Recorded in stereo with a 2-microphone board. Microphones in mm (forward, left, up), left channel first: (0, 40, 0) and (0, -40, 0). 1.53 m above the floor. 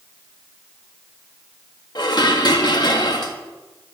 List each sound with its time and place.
1.9 s dishes clattering: 60° left (ahead or behind), 1.6 m